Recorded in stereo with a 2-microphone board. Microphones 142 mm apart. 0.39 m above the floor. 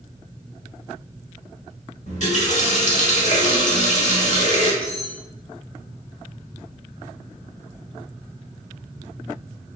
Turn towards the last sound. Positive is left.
turn(degrees=10)  # may be behind; listen again after turning